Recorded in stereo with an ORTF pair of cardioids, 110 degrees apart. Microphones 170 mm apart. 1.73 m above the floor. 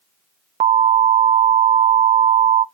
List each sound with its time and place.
0.6 s an alarm: 40° right, 0.5 m